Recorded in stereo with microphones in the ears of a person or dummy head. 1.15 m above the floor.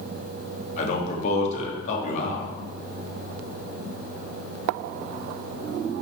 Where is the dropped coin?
I don't hear a dropped coin.